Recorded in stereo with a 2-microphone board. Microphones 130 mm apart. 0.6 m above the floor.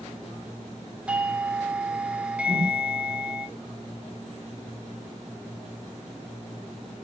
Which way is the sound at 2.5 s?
30° right (ahead or behind).